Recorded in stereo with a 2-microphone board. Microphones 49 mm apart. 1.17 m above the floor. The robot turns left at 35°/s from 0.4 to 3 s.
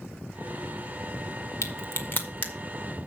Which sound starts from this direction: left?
A crack, at 1.6 s.